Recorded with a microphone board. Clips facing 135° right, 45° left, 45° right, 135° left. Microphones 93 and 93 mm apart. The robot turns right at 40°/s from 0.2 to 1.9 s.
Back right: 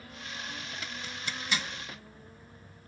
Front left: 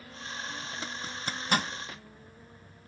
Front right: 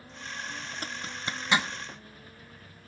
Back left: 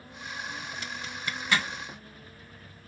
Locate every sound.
0.8 s a zipper: 10° right, 0.6 m; by 1.7 s 25° left, 0.6 m